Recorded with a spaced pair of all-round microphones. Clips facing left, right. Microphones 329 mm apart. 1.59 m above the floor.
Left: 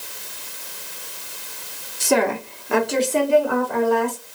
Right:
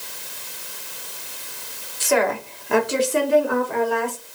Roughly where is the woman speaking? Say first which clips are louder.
Left 1 dB; left.